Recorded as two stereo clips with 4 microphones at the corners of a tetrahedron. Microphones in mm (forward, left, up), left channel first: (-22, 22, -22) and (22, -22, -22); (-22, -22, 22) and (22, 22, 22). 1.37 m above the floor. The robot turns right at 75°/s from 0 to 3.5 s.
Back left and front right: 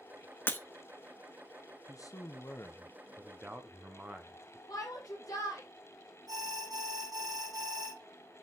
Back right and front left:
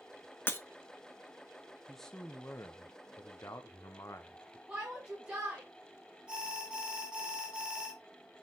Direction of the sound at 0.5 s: 175° right.